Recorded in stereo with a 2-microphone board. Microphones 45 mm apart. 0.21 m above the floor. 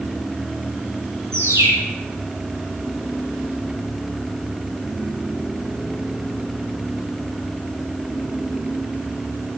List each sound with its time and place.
1.3 s a bird: 75° right (ahead or behind), 8 m